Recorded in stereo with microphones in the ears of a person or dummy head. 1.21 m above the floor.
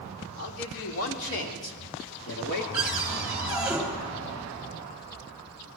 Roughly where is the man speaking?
Left.